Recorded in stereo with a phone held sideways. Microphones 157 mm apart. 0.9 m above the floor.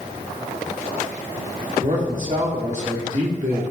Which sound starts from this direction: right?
A man speaking, at 1.8 s.